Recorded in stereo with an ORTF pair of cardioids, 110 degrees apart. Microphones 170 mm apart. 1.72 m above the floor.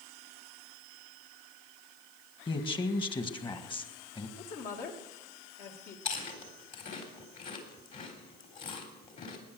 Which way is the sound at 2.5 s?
30° left.